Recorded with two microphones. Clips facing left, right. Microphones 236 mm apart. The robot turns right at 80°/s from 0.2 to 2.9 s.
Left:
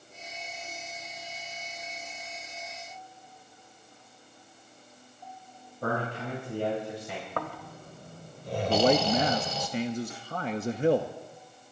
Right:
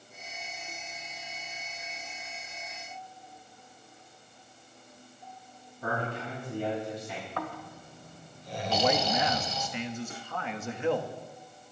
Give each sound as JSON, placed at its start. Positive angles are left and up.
{"t": 5.8, "sound": "a man speaking", "side_deg": 70, "distance_m": 4.5}
{"t": 7.4, "sound": "snoring", "side_deg": 55, "distance_m": 1.1}
{"t": 8.7, "sound": "a man speaking", "side_deg": 40, "distance_m": 0.6}